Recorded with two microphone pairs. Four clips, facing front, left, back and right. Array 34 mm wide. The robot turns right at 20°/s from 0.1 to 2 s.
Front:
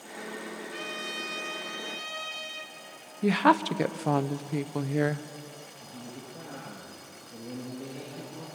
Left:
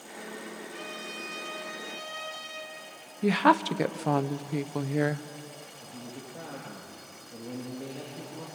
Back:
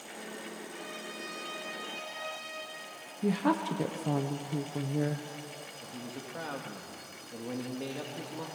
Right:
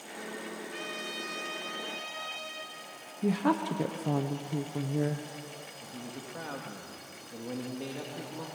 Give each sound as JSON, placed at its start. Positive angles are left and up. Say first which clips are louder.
{"t": 0.7, "sound": "a trumpet", "louder": "right 2 dB, front 6 dB", "azimuth_deg": -35, "distance_m": 4.0}
{"t": 3.2, "sound": "a woman speaking", "louder": "left 6 dB, front 6 dB", "azimuth_deg": 45, "distance_m": 1.0}
{"t": 5.8, "sound": "a man speaking", "louder": "even, even", "azimuth_deg": -145, "distance_m": 2.0}